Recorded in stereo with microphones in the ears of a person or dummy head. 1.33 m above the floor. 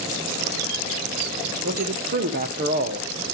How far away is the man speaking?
About 1.2 m.